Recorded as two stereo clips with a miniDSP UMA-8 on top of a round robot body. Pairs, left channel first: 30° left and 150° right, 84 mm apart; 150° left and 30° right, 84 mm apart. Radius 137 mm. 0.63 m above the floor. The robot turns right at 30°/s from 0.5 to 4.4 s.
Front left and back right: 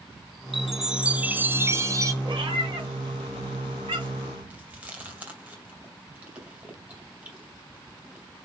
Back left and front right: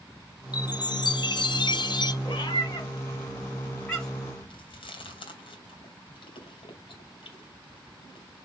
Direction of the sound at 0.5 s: 120° left.